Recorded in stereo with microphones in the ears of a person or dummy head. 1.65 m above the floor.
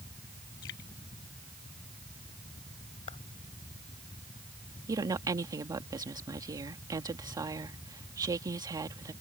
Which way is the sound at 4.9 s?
15° right (ahead or behind).